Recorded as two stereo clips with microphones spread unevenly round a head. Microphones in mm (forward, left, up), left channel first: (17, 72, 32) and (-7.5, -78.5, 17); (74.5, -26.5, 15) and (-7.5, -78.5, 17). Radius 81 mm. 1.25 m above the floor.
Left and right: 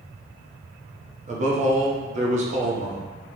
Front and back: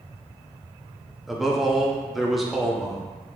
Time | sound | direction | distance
1.3 | a man speaking | 60° right | 0.7 m